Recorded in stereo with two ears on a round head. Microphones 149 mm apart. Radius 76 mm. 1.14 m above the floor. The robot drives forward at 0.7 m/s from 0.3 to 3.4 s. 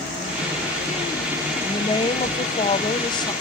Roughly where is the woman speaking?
Left.